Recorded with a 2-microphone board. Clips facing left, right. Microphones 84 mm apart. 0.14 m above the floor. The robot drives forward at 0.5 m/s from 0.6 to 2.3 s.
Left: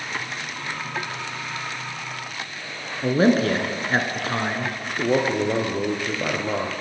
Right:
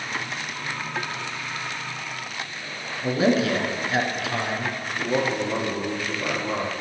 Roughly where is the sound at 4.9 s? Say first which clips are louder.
Left 4 dB; left.